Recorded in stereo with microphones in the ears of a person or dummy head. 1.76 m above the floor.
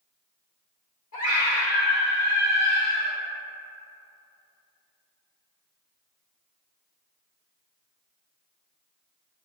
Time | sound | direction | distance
1.1 | a scream | 40° left (ahead or behind) | 1.7 m